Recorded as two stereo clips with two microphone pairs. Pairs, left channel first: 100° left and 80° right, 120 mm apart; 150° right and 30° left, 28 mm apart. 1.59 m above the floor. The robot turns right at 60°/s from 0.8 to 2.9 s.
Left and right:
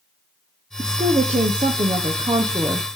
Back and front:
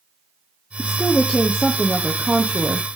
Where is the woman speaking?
125° right, 0.8 m; by 2.9 s straight ahead, 0.8 m.